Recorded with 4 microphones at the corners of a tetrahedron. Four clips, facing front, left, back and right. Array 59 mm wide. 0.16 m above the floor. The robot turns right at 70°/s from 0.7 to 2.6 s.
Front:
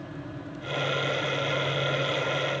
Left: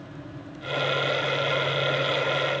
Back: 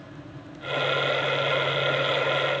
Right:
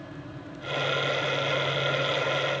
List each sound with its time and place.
Only background noise.